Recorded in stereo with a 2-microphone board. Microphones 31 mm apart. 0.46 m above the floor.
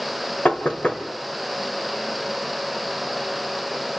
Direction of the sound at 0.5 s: 45° left (ahead or behind).